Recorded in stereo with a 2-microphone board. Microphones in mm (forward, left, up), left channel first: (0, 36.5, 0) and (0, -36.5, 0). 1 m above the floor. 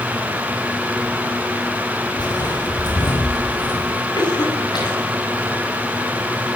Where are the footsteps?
75° left (ahead or behind), 4 m; by 4.0 s 70° left (ahead or behind), 5.5 m.